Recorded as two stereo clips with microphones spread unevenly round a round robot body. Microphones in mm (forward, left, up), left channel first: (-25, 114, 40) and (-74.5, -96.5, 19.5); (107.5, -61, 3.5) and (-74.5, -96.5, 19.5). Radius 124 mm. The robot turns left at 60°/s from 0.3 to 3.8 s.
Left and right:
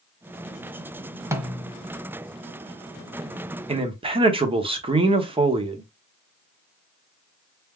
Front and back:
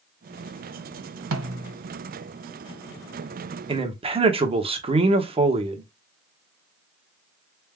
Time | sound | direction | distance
1.3 | a snare drum | 175° left | 0.7 m
3.7 | a man speaking | 125° right | 1.0 m